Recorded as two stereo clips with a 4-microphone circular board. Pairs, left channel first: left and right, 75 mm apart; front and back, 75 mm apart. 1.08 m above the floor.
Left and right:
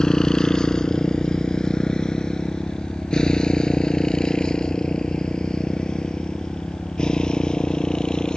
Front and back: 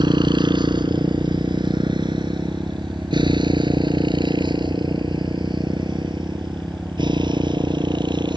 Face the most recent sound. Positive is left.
turn(degrees=170)